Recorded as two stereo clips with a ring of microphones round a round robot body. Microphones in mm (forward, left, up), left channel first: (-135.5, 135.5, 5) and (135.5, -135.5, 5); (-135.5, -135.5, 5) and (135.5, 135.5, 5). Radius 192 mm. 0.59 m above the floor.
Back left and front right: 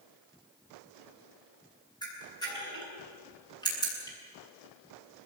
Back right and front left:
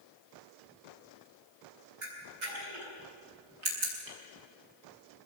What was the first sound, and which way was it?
A camera shutter, 55° left.